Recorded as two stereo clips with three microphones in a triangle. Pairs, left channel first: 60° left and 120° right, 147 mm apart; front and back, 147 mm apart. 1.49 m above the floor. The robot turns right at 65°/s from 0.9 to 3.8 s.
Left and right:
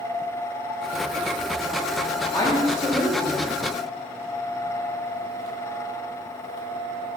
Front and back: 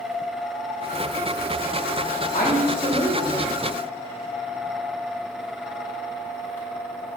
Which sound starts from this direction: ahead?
A woman speaking, at 2.3 s.